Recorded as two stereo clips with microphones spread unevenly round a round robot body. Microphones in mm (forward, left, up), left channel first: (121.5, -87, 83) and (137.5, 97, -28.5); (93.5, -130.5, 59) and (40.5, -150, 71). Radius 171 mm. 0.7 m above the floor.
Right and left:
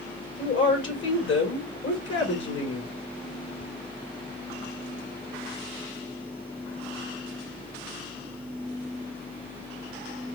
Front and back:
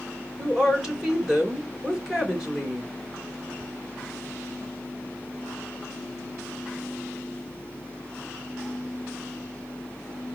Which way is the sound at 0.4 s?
70° right.